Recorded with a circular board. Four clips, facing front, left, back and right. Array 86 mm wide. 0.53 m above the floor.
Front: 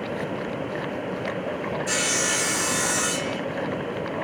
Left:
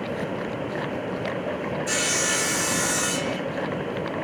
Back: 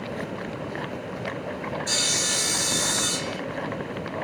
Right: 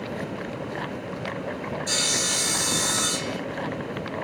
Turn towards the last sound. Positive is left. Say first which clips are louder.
# left 3 dB, front 4 dB
turn(degrees=40)